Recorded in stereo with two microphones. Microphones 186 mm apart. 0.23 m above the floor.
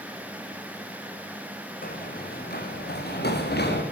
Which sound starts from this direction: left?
Running footsteps, at 1.8 s.